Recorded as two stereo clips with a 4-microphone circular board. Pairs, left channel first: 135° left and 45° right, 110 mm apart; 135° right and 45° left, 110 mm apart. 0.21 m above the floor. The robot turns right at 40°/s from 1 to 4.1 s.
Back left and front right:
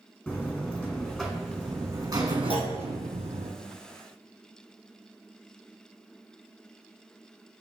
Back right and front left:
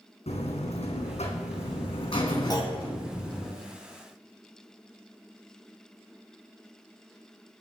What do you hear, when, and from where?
0.3 s a buzzer: 145° right, 2.5 m; by 3.5 s 45° right, 2.5 m
2.5 s a clunk: 170° left, 2 m; by 2.7 s straight behind, 2 m